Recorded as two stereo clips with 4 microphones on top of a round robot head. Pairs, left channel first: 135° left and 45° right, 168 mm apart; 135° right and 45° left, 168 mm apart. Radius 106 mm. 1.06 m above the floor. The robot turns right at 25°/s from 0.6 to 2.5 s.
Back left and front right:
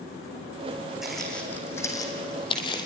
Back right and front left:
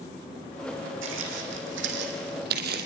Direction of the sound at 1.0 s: 45° left.